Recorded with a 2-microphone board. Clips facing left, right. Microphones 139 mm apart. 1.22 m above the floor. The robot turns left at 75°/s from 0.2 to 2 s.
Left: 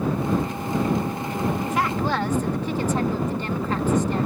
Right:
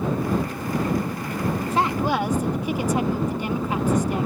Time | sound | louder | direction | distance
1.7 | a woman speaking | right 1 dB | 35° right (ahead or behind) | ?